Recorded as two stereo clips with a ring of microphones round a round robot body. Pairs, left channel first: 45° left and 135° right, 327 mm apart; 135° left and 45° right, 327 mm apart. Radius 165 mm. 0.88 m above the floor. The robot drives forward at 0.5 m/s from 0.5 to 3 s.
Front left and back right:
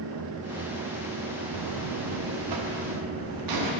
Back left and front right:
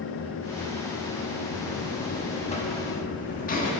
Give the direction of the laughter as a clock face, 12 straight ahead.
I don't hear laughter.